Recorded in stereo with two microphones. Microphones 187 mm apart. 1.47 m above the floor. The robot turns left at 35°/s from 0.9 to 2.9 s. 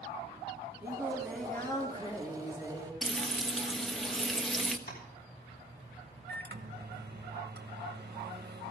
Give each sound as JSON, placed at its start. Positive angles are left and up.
{"t": 0.8, "sound": "singing", "azimuth_deg": -165, "distance_m": 2.5}
{"t": 3.0, "sound": "frying", "side_deg": 0, "distance_m": 1.1}
{"t": 4.9, "sound": "tapping", "side_deg": 60, "distance_m": 6.0}
{"t": 6.3, "sound": "a microwave", "side_deg": -60, "distance_m": 1.5}